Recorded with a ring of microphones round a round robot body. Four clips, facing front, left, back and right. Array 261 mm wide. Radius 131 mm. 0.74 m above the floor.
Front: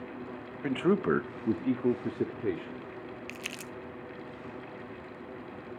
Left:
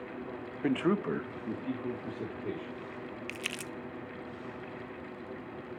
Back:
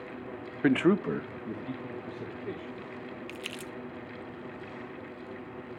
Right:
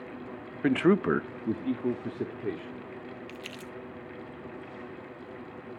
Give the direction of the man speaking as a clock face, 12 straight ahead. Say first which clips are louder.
Right 6 dB, back 2 dB; 5 o'clock.